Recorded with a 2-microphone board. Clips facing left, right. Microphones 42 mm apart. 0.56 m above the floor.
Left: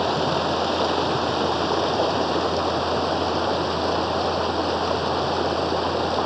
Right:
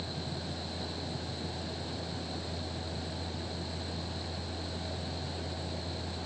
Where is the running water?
80° left.